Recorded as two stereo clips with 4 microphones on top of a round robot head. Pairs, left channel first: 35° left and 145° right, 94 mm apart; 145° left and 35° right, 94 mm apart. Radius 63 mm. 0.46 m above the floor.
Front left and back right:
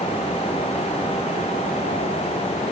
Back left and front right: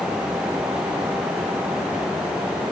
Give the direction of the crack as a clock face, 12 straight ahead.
No crack in this recording.